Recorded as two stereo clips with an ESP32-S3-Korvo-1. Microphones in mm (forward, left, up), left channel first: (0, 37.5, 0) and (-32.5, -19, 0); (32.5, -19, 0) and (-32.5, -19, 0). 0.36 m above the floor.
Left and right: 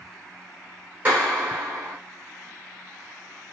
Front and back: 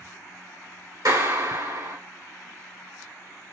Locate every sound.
1.1 s a clap: 175° left, 3 m